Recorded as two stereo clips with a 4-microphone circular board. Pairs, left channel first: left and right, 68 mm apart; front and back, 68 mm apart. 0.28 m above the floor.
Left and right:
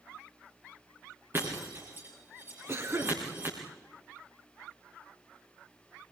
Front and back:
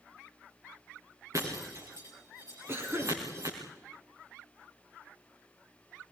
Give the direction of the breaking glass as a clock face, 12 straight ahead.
5 o'clock.